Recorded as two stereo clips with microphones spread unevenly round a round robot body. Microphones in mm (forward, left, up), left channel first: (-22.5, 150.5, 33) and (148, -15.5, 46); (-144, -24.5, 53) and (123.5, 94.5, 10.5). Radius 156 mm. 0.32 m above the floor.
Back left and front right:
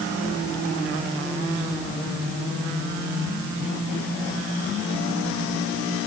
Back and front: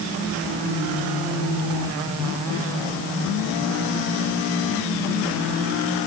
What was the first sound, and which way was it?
Only background noise.